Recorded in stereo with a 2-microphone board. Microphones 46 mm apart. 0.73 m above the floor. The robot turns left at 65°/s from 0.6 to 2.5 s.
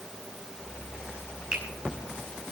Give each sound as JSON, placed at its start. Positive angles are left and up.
{"t": 1.5, "sound": "a finger snap", "side_deg": -20, "distance_m": 5.5}